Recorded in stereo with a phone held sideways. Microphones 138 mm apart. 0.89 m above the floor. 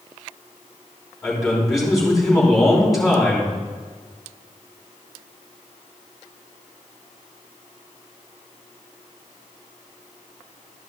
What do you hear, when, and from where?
1.2 s a man speaking: centre (ahead or behind), 3.5 m